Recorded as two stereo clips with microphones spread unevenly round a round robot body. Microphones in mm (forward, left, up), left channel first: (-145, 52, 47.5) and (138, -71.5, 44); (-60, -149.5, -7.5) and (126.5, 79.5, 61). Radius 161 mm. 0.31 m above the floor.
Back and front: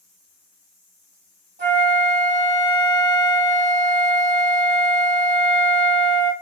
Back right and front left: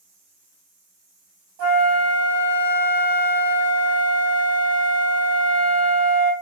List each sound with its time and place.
1.6 s a flute: 40° left, 2.5 m